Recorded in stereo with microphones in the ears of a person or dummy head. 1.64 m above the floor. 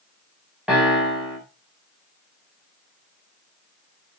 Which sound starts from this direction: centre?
A piano, at 0.7 s.